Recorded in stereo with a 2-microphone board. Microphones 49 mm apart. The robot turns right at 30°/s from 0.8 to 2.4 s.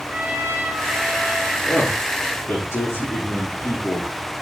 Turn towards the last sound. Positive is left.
turn(degrees=80)